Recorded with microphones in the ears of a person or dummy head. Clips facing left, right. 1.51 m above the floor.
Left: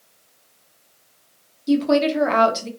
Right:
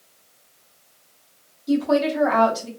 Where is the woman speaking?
35° left (ahead or behind), 0.8 m.